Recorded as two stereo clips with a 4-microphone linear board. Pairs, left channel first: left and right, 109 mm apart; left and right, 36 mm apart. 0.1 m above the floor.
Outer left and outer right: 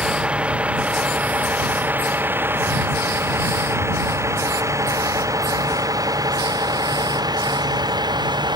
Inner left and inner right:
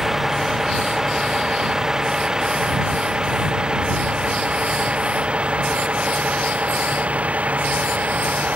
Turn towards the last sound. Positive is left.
turn(degrees=-40)  # may be behind; listen again after turning